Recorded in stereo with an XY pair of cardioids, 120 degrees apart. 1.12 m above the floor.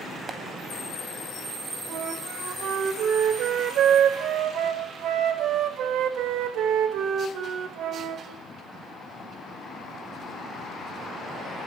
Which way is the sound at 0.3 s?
30° right.